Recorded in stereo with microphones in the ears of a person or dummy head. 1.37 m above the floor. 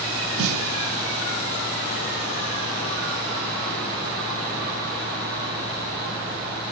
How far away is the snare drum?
About 0.5 m.